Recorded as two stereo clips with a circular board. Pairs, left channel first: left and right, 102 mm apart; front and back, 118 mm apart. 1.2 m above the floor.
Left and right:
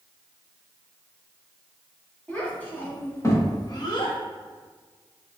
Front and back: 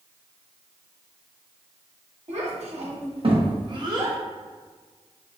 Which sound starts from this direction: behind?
A child speaking, at 2.3 s.